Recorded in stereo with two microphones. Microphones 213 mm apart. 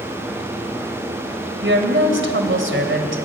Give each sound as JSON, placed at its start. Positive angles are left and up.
{"t": 1.6, "sound": "a woman speaking", "side_deg": -65, "distance_m": 3.0}